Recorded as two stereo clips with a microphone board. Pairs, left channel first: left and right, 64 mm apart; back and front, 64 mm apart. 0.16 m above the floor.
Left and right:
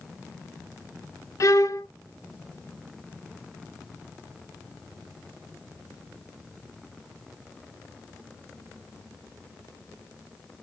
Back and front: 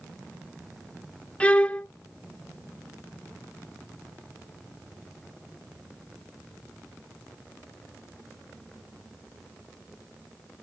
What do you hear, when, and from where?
1.4 s a violin: 110° left, 0.5 m